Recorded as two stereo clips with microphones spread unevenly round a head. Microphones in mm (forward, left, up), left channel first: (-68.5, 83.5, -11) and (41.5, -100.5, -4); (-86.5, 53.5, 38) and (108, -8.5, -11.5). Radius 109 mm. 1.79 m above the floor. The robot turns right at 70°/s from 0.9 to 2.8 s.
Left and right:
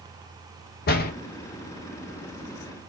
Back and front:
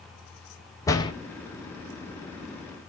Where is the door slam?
115° left, 0.7 m; by 1.1 s 135° left, 0.7 m.